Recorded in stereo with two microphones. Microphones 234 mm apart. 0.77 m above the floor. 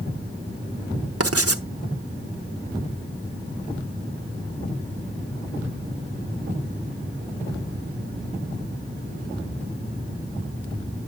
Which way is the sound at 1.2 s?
80° right.